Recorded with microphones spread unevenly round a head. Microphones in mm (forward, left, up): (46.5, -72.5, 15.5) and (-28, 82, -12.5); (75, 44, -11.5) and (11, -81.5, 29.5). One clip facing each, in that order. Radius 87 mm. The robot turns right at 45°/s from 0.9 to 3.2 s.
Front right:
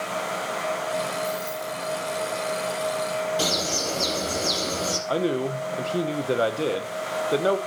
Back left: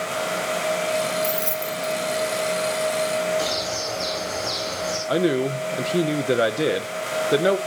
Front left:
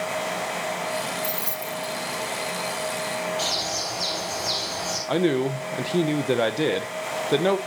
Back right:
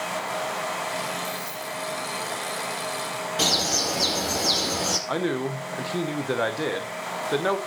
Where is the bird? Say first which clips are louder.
Back left 1 dB, back right 2 dB; 105° right, 4.5 m.